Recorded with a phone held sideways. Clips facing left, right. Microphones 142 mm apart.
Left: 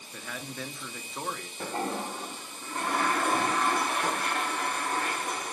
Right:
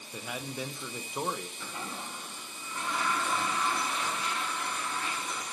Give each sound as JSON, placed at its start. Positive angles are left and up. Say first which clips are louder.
{"t": 0.1, "sound": "a man speaking", "louder": "right 2 dB", "side_deg": -15, "distance_m": 0.8}
{"t": 1.6, "sound": "a toilet flushing", "louder": "left 9 dB", "side_deg": 50, "distance_m": 0.6}